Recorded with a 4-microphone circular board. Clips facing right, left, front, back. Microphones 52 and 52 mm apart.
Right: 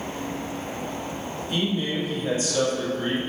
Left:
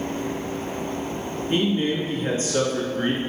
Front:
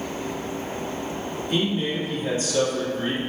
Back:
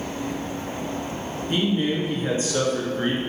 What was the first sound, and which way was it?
A man speaking, 135° left.